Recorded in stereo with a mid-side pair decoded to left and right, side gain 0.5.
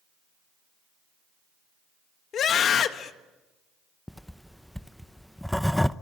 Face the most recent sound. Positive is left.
turn(degrees=5)